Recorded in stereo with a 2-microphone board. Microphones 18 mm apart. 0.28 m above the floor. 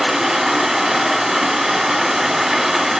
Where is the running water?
30° right (ahead or behind), 1.3 m.